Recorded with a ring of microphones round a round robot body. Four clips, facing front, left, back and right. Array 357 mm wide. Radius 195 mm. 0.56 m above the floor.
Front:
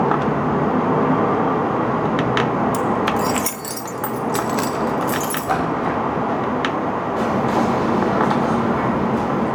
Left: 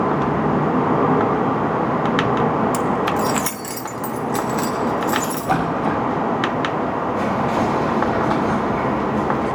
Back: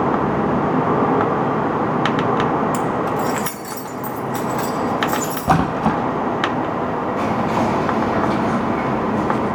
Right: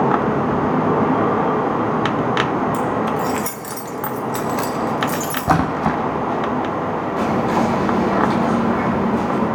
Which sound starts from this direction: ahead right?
Whispering, at 7.2 s.